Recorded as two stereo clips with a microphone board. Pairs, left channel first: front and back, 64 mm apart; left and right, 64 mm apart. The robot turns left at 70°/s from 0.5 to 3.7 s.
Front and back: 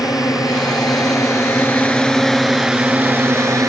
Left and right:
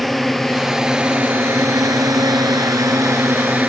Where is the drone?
5° left; by 3.7 s 150° right.